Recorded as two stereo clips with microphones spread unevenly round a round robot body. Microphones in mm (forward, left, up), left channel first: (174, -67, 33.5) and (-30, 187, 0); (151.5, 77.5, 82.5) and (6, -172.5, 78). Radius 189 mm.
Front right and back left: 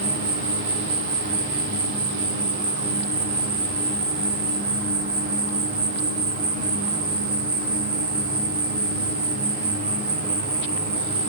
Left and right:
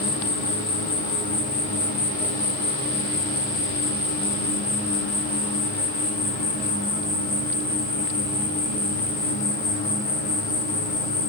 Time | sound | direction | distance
0.0 | an insect | 100° left | 1.4 m